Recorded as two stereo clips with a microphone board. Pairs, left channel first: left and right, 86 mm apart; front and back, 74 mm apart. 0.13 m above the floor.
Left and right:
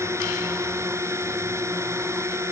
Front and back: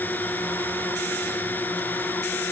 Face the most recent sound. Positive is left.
turn(degrees=-55)